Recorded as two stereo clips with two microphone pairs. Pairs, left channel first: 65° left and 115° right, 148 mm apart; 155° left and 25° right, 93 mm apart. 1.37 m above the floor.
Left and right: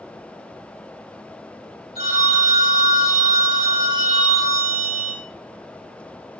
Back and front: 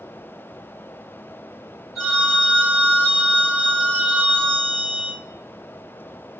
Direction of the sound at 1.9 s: 155° right.